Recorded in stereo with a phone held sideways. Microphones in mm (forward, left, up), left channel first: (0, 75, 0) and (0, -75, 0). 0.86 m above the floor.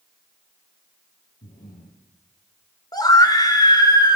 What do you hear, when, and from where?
1.4 s breathing: 75° left (ahead or behind), 10 m
2.9 s a scream: 25° left (ahead or behind), 4 m